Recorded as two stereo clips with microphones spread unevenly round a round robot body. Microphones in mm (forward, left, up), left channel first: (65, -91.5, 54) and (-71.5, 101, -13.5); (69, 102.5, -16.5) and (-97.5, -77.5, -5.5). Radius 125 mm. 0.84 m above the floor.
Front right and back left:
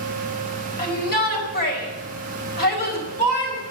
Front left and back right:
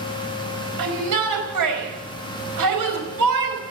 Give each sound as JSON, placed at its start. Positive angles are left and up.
{"t": 0.8, "sound": "a shout", "azimuth_deg": -110, "distance_m": 5.0}